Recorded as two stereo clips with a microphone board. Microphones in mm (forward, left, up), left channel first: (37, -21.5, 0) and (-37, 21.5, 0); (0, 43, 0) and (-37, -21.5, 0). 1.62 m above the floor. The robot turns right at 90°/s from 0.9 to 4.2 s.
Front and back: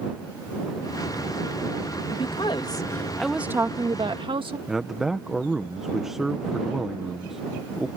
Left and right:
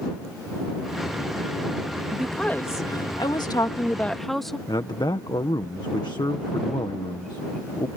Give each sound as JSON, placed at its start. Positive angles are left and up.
{"t": 2.1, "sound": "a woman speaking", "azimuth_deg": -40}
{"t": 4.7, "sound": "a man speaking", "azimuth_deg": 65}